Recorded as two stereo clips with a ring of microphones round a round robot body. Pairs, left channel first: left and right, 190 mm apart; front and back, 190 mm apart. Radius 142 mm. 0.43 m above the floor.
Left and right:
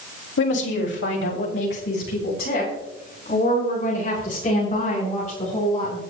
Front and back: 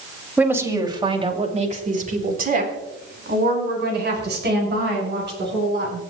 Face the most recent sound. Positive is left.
turn(degrees=155)